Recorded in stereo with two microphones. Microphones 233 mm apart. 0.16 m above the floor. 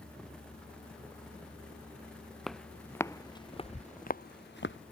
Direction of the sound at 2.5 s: Centre (ahead or behind).